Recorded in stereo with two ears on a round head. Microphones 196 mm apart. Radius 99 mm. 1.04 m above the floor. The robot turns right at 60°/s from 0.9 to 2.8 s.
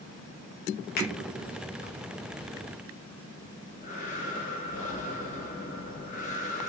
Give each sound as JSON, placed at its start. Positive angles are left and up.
{"t": 1.0, "sound": "a finger snap", "side_deg": 45, "distance_m": 0.8}
{"t": 3.4, "sound": "breathing", "side_deg": 35, "distance_m": 0.7}